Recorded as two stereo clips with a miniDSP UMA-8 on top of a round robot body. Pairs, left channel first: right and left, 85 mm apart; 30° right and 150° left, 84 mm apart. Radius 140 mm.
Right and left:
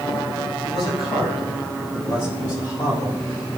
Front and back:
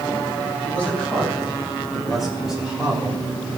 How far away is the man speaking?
About 5.5 m.